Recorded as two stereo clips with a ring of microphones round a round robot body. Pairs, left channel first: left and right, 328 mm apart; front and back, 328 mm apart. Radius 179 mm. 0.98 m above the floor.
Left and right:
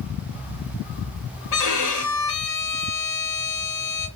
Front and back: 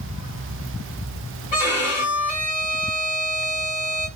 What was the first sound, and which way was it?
A violin, 65° left.